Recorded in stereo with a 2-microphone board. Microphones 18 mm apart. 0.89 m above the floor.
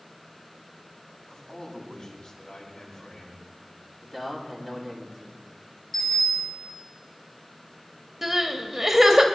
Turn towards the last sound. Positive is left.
turn(degrees=-15)  # may be behind; listen again after turning